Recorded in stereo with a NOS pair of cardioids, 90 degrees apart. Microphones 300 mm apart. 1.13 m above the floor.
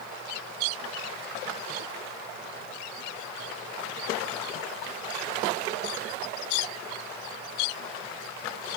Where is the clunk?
No clunk in this recording.